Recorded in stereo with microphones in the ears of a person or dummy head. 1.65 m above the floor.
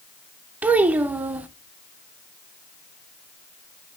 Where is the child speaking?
10° right (ahead or behind), 0.7 m.